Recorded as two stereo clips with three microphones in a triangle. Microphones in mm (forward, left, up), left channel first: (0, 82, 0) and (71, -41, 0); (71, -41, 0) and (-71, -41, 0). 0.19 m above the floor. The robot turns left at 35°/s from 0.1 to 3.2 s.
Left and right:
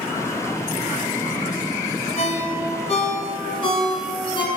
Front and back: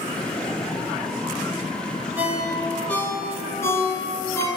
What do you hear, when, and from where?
2.2 s a ringtone: 105° left, 1.0 m; by 4.5 s 70° left, 1.0 m